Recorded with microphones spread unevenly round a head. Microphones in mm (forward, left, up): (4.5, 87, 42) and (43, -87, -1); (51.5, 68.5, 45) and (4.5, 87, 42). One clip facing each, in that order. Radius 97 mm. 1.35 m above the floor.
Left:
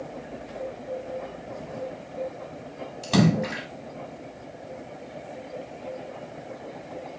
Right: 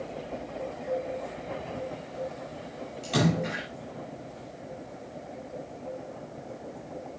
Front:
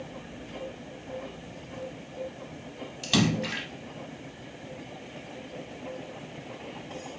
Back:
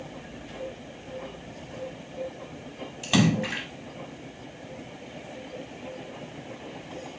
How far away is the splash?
About 5 m.